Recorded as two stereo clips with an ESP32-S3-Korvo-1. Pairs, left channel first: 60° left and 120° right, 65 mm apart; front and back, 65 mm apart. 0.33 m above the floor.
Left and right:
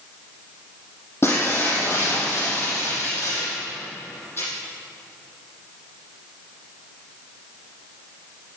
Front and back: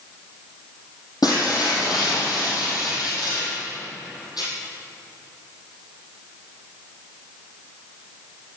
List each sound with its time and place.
1.2 s breaking glass: 5° left, 5 m